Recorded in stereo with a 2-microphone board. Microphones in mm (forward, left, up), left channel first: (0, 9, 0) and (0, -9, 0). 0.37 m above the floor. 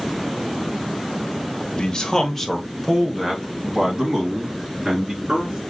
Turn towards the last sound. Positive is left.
turn(degrees=-40)  # may be behind; listen again after turning